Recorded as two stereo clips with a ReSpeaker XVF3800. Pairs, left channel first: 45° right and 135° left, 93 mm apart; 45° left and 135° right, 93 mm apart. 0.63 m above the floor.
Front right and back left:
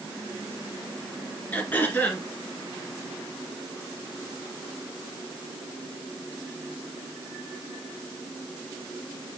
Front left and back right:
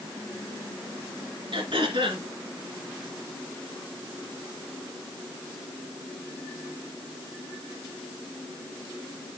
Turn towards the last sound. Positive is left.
turn(degrees=-115)